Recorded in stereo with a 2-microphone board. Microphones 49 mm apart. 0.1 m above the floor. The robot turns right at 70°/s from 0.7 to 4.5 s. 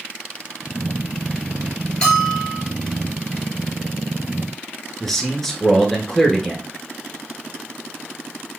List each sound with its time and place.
2.0 s a bell: 30° left, 1.9 m; by 2.6 s 75° left, 1.9 m
5.0 s a man speaking: 10° left (ahead or behind), 1.2 m